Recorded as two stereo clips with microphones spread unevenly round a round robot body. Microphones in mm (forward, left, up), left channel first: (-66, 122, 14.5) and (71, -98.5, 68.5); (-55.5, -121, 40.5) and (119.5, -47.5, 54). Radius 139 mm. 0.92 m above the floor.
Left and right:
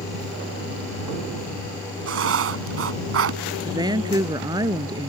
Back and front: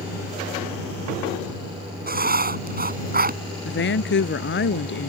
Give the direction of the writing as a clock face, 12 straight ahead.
1 o'clock.